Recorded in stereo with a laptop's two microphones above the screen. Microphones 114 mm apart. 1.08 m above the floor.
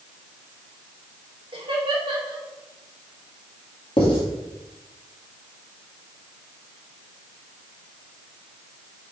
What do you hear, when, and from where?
1.5 s laughter: 50° right (ahead or behind), 2.5 m
4.0 s writing: 50° left (ahead or behind), 2.5 m